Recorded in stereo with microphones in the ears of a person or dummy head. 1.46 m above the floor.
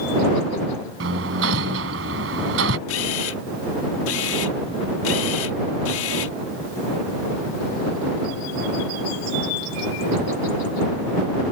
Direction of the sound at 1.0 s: 75° right (ahead or behind).